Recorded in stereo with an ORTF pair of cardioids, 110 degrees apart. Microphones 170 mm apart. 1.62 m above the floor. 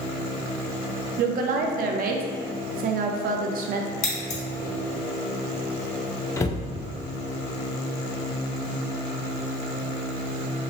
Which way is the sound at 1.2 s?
60° right.